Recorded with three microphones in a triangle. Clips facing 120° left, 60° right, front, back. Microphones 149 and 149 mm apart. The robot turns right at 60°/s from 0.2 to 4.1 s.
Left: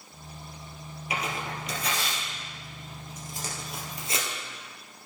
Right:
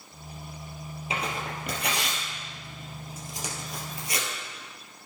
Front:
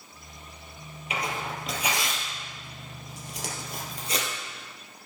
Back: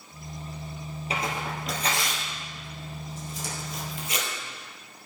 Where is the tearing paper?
125° right, 3.5 m; by 4.3 s 55° left, 3.5 m.